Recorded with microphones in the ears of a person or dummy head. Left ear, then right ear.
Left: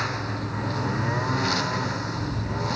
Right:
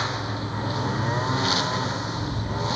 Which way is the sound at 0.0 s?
15° right (ahead or behind).